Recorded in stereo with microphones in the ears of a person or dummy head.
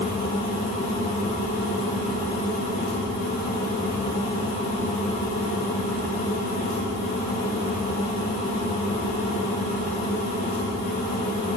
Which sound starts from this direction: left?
A fan, at 0.0 s.